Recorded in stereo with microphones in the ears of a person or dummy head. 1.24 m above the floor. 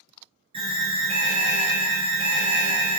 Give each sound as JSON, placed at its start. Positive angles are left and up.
{"t": 0.5, "sound": "an alarm", "side_deg": -30, "distance_m": 0.8}